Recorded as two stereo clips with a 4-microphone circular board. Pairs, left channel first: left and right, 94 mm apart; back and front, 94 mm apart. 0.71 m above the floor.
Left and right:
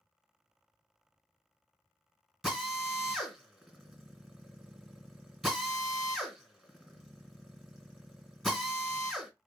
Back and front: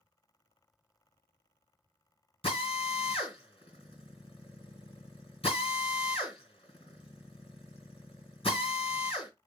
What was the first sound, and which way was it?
A drill, straight behind.